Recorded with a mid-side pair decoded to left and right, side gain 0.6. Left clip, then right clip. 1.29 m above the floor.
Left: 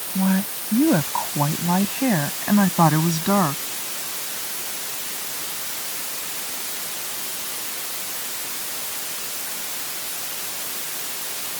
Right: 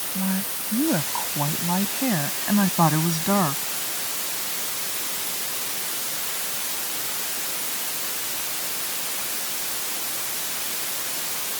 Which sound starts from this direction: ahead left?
A woman speaking, at 0.1 s.